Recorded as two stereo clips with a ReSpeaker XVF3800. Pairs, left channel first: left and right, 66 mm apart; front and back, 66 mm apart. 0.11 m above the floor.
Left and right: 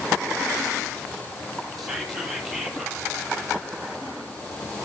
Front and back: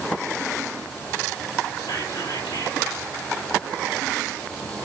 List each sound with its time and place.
1.8 s whispering: straight ahead, 3.5 m